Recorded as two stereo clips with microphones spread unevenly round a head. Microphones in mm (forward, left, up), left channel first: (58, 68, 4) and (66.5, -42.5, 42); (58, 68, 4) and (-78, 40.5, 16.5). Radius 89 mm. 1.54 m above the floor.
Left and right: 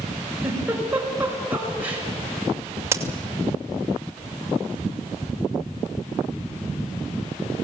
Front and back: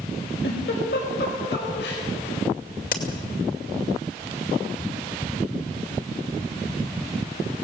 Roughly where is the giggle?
Ahead.